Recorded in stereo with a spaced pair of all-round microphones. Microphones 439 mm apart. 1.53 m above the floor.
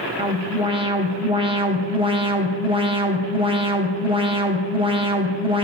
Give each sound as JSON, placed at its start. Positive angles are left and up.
{"t": 0.2, "sound": "an alarm", "side_deg": -10, "distance_m": 1.7}